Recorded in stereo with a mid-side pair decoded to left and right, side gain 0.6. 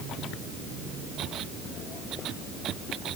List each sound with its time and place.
Only background noise.